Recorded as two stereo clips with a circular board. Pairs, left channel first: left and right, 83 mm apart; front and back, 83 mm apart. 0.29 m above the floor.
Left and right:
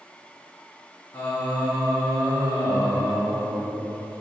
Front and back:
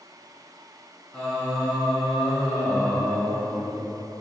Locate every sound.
1.1 s singing: 85° left, 1.1 m